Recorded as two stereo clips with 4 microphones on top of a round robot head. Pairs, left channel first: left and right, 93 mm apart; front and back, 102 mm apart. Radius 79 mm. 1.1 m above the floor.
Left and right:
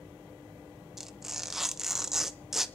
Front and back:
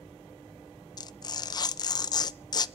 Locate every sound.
1.0 s tearing paper: 5° right, 0.6 m